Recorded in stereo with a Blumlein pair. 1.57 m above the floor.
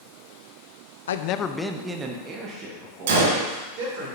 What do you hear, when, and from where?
1.1 s a man speaking: 65° left, 0.7 m; by 4.1 s 45° right, 3.5 m
3.1 s a gunshot: 55° right, 2 m